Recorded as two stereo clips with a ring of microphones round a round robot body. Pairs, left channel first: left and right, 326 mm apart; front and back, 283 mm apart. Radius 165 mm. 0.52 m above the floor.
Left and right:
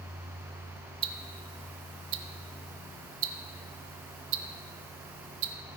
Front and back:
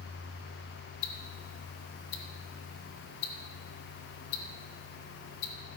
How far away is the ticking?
About 0.6 m.